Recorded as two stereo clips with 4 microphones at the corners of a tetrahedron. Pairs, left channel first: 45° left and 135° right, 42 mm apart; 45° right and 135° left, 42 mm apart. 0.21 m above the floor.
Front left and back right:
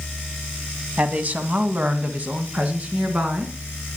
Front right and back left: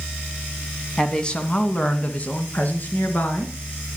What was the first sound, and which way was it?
A woman speaking, 110° right.